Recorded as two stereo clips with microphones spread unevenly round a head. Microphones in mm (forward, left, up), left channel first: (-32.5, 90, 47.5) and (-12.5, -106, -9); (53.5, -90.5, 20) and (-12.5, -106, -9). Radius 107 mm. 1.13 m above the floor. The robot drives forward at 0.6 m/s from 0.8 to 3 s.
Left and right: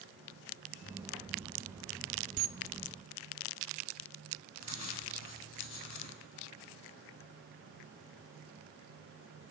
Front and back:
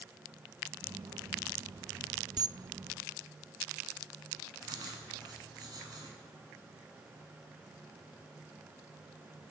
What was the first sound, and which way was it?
A camera shutter, 130° right.